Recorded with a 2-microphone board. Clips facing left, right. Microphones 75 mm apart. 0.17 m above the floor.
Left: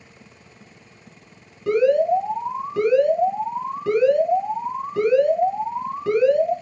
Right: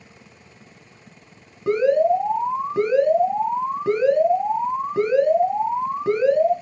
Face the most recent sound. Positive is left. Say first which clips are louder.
# even
turn(degrees=-25)  # may be behind; listen again after turning